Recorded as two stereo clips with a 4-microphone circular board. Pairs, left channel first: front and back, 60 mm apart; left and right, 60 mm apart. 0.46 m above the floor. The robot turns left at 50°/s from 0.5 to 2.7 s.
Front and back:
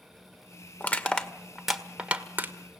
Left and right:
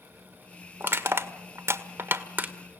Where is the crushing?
50° right, 1.5 m; by 2.5 s 140° right, 1.5 m.